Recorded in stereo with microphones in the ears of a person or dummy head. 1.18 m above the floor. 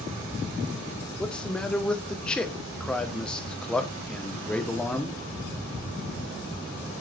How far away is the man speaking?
About 0.9 m.